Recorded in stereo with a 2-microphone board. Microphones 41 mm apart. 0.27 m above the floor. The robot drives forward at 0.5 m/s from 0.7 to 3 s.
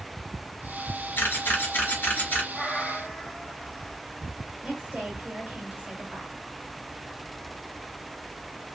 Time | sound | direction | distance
1.2 | a camera shutter | 60° left (ahead or behind) | 1.0 m
2.5 | a cat meowing | 20° left (ahead or behind) | 1.2 m
4.6 | a woman speaking | 25° right (ahead or behind) | 1.5 m